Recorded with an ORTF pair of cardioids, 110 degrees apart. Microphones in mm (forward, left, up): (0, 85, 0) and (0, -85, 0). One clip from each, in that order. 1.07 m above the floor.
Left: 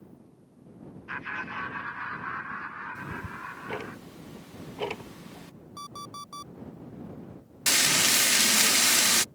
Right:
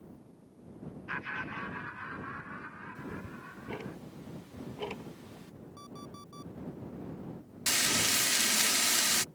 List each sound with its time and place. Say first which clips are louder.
1.1 s laughter: left 3 dB; straight ahead; by 4.0 s 60° left
3.0 s ticking: left 7 dB; 30° left
5.8 s an alarm clock: left 10 dB; 60° left
7.7 s frying: left 6 dB; 30° left